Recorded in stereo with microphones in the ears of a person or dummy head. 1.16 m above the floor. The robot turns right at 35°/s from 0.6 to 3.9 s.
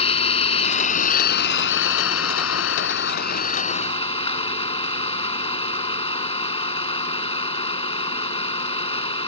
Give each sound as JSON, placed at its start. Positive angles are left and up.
{"t": 0.0, "sound": "an engine running", "azimuth_deg": 35}